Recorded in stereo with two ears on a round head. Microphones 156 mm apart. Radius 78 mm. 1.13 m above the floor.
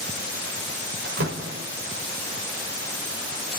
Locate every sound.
1.1 s a door slam: 85° right, 3 m